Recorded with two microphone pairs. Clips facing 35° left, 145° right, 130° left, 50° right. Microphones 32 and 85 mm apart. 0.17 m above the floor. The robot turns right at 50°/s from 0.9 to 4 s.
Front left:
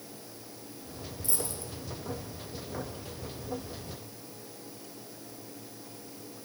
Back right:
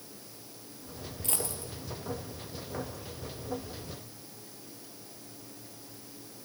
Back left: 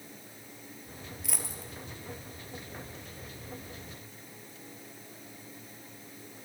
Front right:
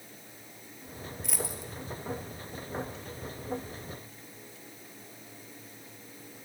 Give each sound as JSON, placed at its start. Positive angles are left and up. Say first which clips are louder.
{"t": 1.2, "sound": "a dropped coin", "louder": "back right 1 dB, front right 5 dB", "azimuth_deg": -145, "distance_m": 1.2}